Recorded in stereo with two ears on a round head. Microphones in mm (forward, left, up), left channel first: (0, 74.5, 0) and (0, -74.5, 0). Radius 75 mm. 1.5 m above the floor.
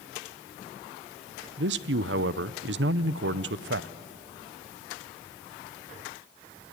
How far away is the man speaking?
About 0.6 m.